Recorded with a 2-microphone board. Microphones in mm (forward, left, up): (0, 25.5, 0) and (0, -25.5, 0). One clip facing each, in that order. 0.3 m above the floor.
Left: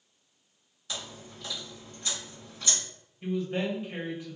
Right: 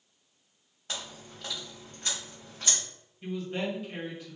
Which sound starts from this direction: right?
Chewing, at 0.9 s.